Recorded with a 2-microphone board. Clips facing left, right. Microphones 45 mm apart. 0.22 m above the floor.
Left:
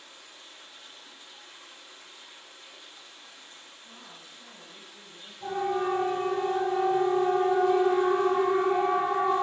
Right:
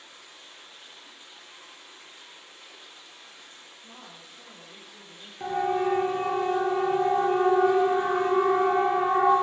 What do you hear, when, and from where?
0.0 s running water: 35° right (ahead or behind), 7 m
3.8 s a woman speaking: 70° right (ahead or behind), 8.5 m
5.4 s a siren: 70° right (ahead or behind), 4.5 m